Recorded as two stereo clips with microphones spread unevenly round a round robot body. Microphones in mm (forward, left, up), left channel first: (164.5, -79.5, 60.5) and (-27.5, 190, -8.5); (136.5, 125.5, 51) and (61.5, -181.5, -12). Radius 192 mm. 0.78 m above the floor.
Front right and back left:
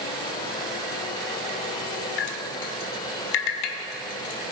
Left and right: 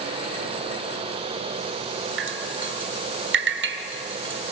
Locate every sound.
2.2 s dripping: 50° right, 1.5 m